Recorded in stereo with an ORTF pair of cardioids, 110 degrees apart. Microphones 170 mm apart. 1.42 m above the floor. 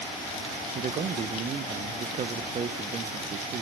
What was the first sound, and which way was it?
A man speaking, 40° right.